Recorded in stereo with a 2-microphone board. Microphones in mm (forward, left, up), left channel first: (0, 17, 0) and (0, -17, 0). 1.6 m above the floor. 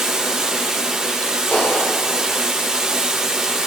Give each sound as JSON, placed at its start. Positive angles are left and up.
{"t": 0.0, "sound": "running water", "side_deg": -10, "distance_m": 5.0}
{"t": 1.5, "sound": "a clap", "side_deg": 60, "distance_m": 5.5}